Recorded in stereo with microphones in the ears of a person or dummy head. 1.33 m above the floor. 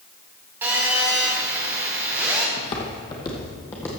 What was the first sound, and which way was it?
A phone buzzing, 10° right (ahead or behind).